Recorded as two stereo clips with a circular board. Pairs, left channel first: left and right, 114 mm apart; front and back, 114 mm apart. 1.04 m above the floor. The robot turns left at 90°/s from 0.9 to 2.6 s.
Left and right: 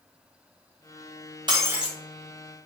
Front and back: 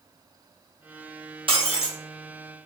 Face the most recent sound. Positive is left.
turn(degrees=120)